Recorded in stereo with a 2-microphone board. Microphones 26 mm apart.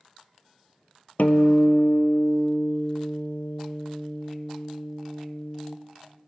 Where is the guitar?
65° left (ahead or behind), 0.5 m.